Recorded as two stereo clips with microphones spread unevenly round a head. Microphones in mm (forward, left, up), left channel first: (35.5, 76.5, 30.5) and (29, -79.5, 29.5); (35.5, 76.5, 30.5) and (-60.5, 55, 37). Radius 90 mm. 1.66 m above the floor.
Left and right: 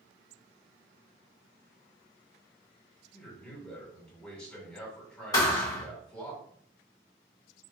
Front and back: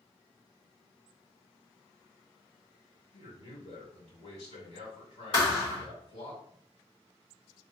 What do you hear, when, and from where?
3.1 s a man speaking: 5° left, 2 m
5.3 s a thud: 30° left, 1.9 m